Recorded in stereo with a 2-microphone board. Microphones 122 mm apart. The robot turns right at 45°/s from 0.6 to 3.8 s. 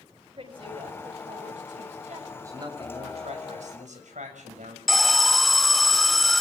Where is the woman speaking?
135° right, 7 m; by 2.2 s 65° right, 7 m.